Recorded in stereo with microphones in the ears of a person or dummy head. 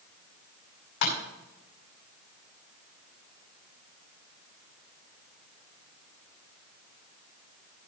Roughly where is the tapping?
Left.